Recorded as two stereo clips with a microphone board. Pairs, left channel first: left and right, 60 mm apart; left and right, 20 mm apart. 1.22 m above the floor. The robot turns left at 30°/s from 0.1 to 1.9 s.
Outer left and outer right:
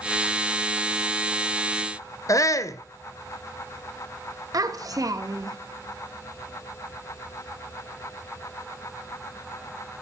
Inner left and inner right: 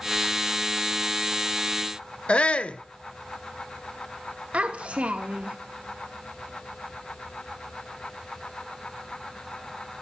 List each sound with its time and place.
2.3 s a shout: 60° left (ahead or behind), 0.8 m
4.5 s a child speaking: 70° right (ahead or behind), 1.1 m